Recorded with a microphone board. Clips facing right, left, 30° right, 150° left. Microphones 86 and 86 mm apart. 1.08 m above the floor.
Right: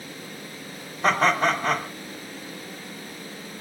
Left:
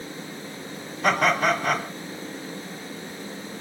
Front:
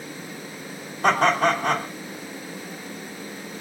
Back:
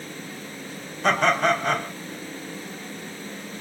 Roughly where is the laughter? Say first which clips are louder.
Even, front 1 dB; ahead right.